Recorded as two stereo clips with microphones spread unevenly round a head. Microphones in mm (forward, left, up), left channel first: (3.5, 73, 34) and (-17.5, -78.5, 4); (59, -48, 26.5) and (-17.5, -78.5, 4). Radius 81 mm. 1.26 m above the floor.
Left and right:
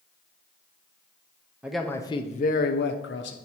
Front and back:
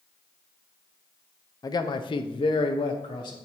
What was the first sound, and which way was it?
A man speaking, 25° right.